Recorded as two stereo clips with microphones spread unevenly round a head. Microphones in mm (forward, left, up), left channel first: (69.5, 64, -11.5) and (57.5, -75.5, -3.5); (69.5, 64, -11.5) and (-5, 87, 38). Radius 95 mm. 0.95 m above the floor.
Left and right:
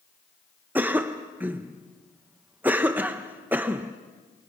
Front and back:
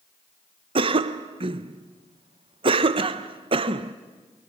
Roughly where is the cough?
Behind.